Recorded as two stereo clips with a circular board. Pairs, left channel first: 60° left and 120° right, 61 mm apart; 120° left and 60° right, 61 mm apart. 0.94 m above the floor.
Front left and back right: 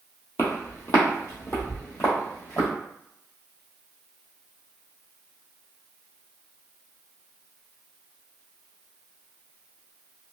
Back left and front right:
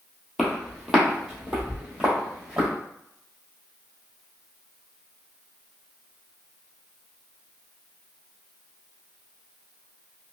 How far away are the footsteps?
About 1.5 m.